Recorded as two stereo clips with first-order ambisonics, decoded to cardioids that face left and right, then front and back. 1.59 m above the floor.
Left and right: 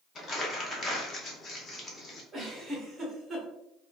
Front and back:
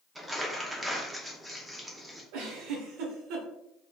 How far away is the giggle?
About 1.1 m.